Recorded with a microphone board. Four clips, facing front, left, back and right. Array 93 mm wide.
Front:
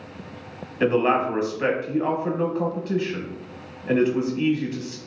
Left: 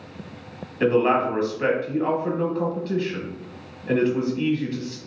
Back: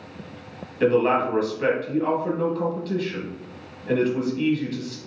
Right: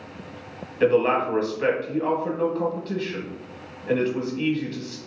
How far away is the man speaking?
About 1.0 m.